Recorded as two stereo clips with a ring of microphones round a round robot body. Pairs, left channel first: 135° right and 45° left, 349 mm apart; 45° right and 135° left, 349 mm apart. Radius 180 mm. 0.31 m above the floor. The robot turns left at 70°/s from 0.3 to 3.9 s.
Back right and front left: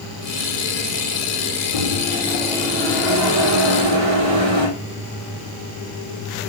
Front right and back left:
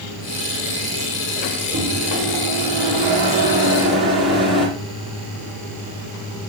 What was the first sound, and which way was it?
A microwave, 165° right.